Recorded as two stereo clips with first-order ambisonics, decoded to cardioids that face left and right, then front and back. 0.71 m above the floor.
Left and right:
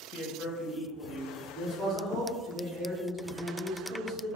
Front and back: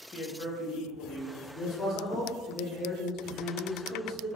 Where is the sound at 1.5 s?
40° right, 1.5 m.